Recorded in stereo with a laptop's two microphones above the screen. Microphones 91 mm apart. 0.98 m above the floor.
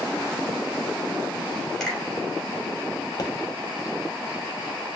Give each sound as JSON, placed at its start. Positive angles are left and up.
{"t": 1.8, "sound": "a finger snap", "side_deg": 0, "distance_m": 3.5}
{"t": 3.2, "sound": "a pop", "side_deg": 45, "distance_m": 1.2}